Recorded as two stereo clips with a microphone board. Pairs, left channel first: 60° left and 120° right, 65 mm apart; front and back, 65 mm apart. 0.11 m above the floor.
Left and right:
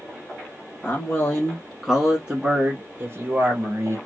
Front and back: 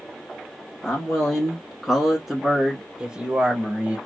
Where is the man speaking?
55° left, 1.2 m; by 4.0 s 120° right, 1.6 m.